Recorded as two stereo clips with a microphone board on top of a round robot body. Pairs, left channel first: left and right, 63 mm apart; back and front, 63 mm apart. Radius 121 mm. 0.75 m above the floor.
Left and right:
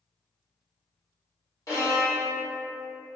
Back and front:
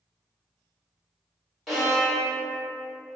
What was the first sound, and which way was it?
A violin, 80° left.